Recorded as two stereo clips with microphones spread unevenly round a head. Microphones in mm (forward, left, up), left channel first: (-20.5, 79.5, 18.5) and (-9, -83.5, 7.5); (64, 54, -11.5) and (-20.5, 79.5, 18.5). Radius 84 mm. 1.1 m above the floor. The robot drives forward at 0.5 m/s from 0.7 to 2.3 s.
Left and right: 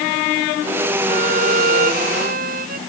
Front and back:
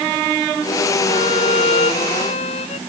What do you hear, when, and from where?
1.1 s a violin: 40° right